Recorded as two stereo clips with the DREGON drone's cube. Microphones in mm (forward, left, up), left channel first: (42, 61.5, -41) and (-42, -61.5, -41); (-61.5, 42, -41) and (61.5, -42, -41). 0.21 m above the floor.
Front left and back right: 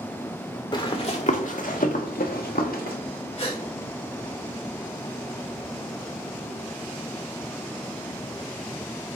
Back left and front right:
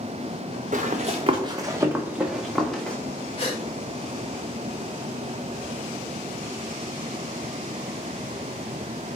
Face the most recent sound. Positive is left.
turn(degrees=100)